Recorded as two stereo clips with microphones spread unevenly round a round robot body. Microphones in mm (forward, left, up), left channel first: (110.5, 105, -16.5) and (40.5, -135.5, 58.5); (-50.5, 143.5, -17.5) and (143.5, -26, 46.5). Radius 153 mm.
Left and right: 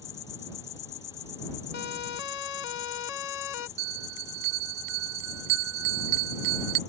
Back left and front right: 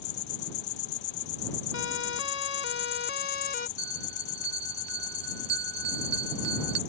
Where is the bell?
90° right.